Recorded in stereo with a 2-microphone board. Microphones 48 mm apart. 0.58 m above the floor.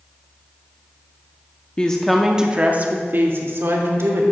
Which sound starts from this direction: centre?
A woman speaking, at 1.8 s.